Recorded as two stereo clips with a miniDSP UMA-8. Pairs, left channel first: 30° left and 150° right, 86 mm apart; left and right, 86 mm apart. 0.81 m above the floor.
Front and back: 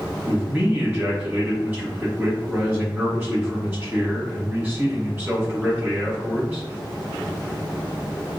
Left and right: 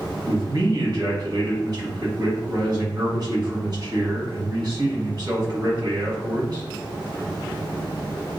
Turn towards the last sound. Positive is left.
turn(degrees=-95)